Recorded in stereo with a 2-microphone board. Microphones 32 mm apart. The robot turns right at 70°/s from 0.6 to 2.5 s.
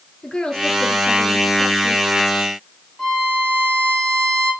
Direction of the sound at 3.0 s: 20° left (ahead or behind).